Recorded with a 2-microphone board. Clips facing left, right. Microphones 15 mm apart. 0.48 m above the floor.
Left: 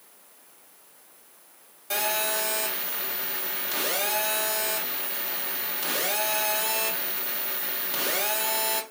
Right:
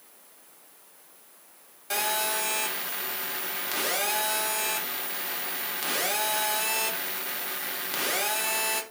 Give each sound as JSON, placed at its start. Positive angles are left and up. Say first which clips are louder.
{"t": 1.9, "sound": "a phone buzzing", "louder": "left 1 dB", "side_deg": -10, "distance_m": 0.8}